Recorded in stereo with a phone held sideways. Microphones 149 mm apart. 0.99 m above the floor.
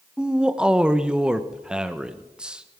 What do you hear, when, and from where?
0.2 s a man speaking: 5° right (ahead or behind), 0.6 m